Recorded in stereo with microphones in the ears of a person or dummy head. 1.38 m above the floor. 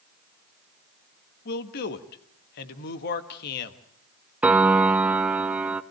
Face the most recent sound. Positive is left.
turn(degrees=-5)  # may be behind; listen again after turning